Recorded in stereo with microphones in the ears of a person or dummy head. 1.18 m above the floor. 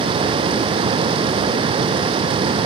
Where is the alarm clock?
I don't hear an alarm clock.